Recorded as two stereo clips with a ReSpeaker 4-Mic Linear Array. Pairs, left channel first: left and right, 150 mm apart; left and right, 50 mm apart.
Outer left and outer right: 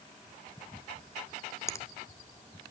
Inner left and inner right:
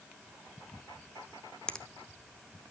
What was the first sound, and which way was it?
A finger snap, 20° left (ahead or behind).